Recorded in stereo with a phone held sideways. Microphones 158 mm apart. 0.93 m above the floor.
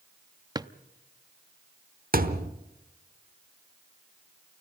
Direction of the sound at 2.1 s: 70° right (ahead or behind).